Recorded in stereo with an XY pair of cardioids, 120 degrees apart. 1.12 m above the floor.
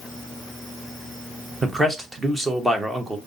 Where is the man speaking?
15° right, 1.0 m.